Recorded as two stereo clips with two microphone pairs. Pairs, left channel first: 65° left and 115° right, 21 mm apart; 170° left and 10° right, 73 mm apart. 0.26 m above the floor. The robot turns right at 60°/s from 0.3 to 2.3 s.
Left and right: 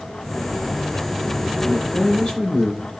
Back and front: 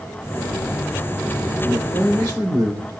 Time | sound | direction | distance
1.6 | a man speaking | 25° right | 7.5 m